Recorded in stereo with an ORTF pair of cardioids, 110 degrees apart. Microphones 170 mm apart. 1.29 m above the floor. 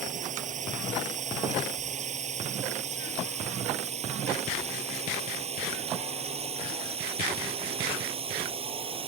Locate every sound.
0.0 s a drone: 45° right; by 9.1 s 30° right